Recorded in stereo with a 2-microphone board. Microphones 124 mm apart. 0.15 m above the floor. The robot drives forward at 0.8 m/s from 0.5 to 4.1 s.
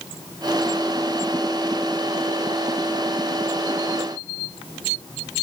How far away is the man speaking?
No man speaking in this recording.